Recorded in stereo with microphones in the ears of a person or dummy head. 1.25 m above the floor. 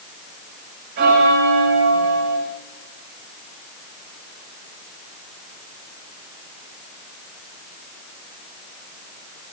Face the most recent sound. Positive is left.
turn(degrees=-55)  # may be behind; listen again after turning